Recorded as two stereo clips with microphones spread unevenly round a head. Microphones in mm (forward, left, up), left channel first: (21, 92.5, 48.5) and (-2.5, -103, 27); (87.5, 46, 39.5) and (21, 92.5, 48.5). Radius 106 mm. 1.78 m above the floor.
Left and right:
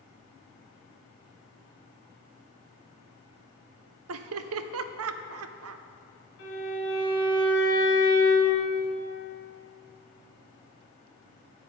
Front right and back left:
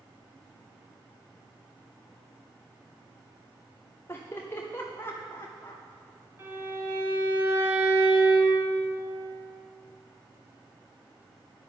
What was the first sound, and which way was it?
Laughter, 110° right.